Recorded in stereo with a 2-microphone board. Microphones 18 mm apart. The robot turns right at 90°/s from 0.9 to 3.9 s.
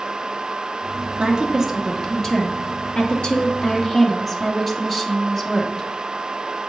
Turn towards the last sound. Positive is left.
turn(degrees=180)